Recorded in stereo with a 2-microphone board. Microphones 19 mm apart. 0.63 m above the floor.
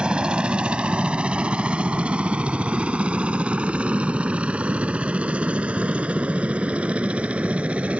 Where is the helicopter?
45° right (ahead or behind); by 8.0 s 75° right (ahead or behind).